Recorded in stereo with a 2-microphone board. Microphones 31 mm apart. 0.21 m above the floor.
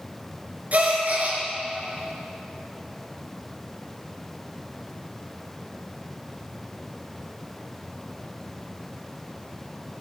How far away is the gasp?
About 3.5 m.